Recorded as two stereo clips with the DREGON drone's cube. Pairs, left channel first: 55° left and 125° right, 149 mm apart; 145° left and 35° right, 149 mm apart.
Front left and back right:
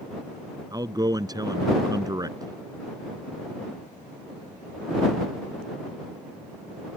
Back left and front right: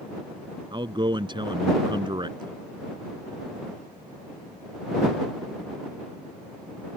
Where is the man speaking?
75° right.